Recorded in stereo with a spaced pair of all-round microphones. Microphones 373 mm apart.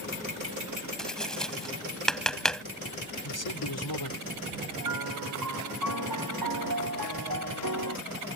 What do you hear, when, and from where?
1.0 s tapping: centre (ahead or behind)
3.2 s a man speaking: 75° left (ahead or behind)
4.8 s a piano: 65° right (ahead or behind)